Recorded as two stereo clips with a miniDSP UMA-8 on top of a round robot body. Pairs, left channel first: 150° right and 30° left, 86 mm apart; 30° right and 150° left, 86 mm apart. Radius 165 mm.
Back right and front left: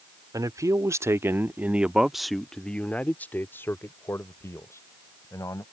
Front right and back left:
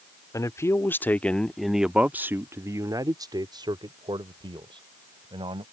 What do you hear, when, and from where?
0.3 s a man speaking: 5° left; by 5.6 s 160° left